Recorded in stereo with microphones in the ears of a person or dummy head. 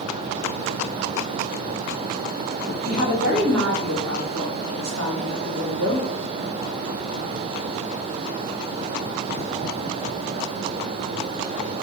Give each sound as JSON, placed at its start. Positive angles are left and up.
{"t": 2.8, "sound": "a woman speaking", "side_deg": -75, "distance_m": 1.6}